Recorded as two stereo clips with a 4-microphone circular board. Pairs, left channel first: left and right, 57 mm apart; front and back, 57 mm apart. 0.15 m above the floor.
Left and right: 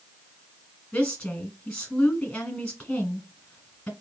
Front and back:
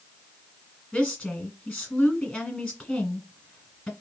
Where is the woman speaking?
50° left, 1.3 m.